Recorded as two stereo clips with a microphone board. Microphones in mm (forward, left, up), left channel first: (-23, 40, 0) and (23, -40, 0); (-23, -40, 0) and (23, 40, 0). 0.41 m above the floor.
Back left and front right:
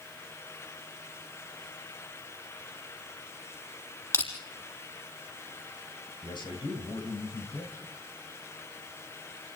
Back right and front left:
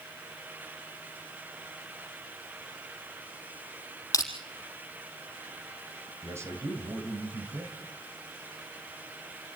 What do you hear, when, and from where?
4.1 s crushing: 175° right, 3.5 m
6.2 s a man speaking: 115° left, 2.5 m